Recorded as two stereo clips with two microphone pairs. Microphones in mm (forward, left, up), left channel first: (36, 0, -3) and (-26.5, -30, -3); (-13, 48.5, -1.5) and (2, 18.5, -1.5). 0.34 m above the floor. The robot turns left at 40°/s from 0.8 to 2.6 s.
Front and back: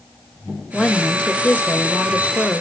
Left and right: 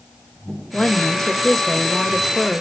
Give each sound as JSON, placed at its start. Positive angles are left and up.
{"t": 0.7, "sound": "a woman speaking", "azimuth_deg": 90, "distance_m": 1.0}